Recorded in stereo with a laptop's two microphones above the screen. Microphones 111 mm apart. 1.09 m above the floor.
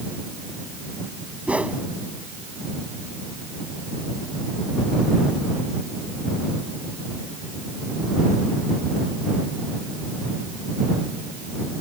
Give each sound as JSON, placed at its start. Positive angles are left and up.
{"t": 1.5, "sound": "a whoosh", "side_deg": -10}